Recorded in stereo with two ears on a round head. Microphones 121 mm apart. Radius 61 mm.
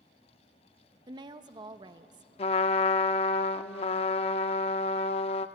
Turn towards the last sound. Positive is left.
turn(degrees=45)  # may be behind; listen again after turning